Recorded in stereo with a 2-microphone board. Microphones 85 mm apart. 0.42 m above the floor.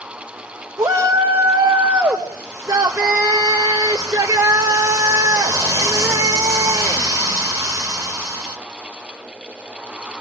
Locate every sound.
0.8 s a shout: 40° right (ahead or behind), 2 m